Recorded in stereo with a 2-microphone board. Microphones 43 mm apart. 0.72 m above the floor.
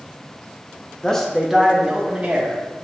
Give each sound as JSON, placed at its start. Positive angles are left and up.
{"t": 1.0, "sound": "a man speaking", "side_deg": 15, "distance_m": 0.6}